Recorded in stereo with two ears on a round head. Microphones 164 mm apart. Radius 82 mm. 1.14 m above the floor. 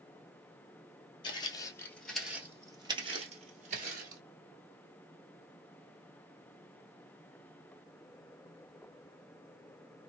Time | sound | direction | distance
1.2 | footsteps | 30° left (ahead or behind) | 1.3 m